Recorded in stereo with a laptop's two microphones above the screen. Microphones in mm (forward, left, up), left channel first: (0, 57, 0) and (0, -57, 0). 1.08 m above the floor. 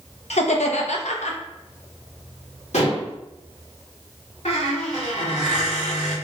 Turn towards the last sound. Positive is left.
turn(degrees=80)